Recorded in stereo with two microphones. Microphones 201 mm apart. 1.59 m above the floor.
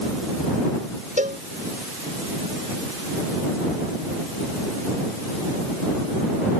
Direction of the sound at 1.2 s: 45° right (ahead or behind).